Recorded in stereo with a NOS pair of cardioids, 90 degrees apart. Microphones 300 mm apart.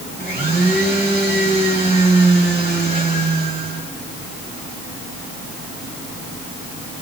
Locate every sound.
0.2 s a blender: 30° right, 7 m